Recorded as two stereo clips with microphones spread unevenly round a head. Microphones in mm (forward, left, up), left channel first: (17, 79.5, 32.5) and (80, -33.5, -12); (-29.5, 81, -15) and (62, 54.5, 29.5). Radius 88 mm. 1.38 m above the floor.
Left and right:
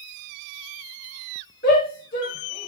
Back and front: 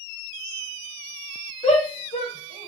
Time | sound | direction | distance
1.6 | a shout | 140° left | 3.5 m